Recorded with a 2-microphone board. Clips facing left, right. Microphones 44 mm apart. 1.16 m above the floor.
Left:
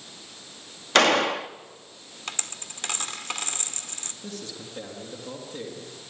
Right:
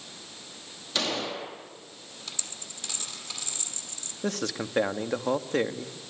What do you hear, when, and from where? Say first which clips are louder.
0.9 s a gunshot: left 11 dB; 65° left (ahead or behind), 1.5 m
2.3 s a dropped coin: left 7 dB; 55° left (ahead or behind), 1.8 m
4.2 s a man speaking: right 9 dB; 85° right, 1.7 m